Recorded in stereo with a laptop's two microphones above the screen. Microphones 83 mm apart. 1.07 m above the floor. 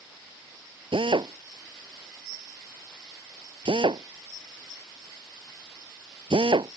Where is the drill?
80° right.